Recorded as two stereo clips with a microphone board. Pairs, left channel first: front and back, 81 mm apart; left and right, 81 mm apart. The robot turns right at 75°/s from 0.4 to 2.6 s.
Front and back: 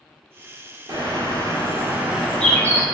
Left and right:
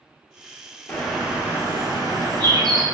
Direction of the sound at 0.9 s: 165° left.